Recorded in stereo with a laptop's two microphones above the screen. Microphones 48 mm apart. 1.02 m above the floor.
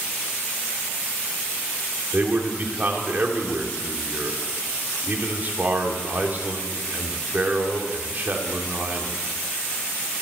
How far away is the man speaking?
About 3 m.